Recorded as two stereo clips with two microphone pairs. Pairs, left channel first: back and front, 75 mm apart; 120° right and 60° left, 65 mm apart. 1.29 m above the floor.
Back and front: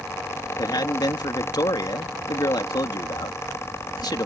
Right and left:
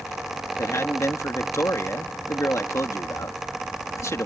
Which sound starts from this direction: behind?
A man speaking, at 0.6 s.